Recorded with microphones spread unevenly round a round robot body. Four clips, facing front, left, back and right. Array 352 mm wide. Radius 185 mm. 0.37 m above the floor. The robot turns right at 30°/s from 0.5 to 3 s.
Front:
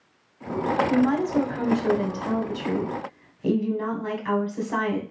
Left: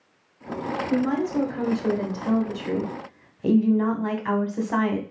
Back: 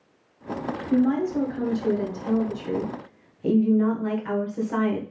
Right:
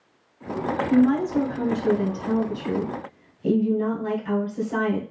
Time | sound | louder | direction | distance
0.9 | a woman speaking | right 5 dB, back 3 dB | 15° left | 1.8 m